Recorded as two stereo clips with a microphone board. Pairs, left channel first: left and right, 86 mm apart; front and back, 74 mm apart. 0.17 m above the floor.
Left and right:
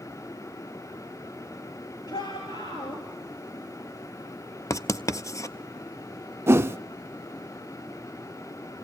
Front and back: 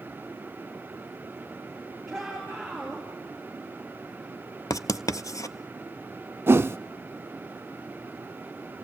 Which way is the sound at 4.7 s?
40° left.